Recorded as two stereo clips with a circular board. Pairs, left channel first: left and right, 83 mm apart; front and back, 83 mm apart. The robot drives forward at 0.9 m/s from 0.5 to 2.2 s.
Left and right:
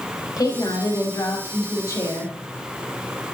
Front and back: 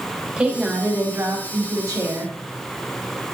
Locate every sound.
0.4 s a woman speaking: 105° left, 1.9 m; by 2.3 s 145° left, 2.5 m